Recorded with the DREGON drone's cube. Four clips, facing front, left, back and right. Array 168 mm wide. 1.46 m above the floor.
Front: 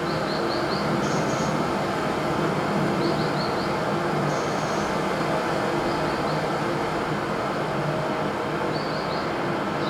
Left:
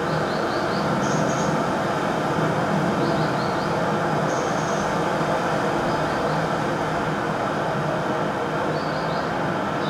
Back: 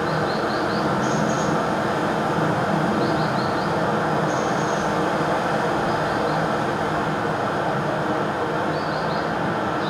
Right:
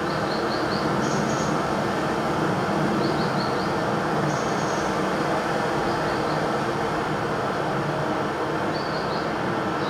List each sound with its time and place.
0.0 s running water: 140° left, 1.5 m